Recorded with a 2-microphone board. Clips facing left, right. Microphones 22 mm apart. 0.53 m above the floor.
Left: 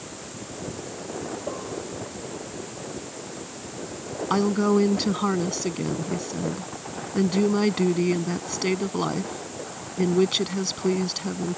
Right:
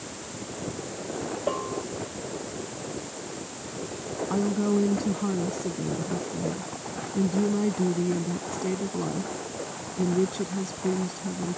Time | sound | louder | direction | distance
1.5 | a bell | right 3 dB | 40° right (ahead or behind) | ?
4.3 | a woman speaking | left 4 dB | 75° left (ahead or behind) | ?